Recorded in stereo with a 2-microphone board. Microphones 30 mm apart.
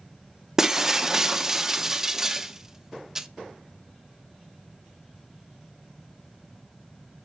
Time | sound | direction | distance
0.6 | breaking glass | 10° right (ahead or behind) | 0.6 m